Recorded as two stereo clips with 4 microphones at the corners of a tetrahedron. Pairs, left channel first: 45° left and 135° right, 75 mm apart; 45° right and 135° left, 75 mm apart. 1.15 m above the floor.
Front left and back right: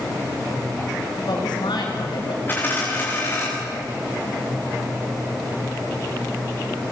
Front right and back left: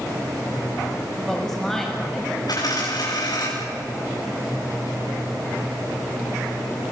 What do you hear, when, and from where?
1.2 s a woman speaking: 40° left, 7 m
2.5 s a dropped coin: 15° right, 6.5 m